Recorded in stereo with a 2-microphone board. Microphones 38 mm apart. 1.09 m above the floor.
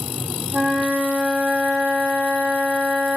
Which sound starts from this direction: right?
A flute, at 0.5 s.